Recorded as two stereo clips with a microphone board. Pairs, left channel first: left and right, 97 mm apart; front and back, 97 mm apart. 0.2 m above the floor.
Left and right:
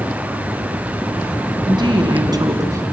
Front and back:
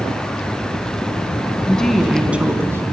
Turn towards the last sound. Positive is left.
turn(degrees=-135)